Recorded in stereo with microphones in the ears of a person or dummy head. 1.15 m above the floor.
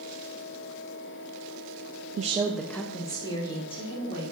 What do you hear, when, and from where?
2.2 s a woman speaking: 40° right (ahead or behind), 0.6 m; by 4.2 s 30° left (ahead or behind), 3 m